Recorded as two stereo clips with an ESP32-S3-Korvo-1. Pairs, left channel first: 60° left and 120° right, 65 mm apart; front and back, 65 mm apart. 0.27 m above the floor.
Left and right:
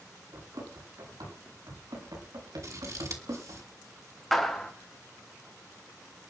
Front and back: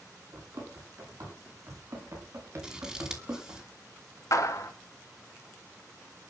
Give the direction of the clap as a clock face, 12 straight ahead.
1 o'clock.